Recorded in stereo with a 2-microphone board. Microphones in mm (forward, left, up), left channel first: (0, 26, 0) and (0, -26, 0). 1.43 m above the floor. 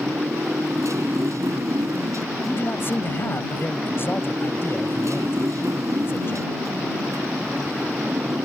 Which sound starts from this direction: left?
A man speaking, at 2.5 s.